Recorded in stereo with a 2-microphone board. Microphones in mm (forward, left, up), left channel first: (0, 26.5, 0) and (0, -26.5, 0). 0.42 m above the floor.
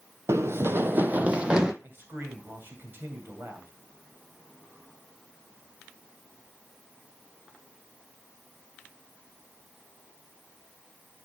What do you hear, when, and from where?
0.3 s running footsteps: 60° right (ahead or behind), 0.8 m; by 1.7 s 15° right (ahead or behind), 0.8 m
1.8 s a man speaking: 40° right (ahead or behind), 2.5 m